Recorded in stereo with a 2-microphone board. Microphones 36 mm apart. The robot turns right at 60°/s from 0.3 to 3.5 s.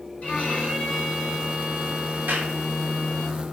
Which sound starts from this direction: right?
A clap, at 2.3 s.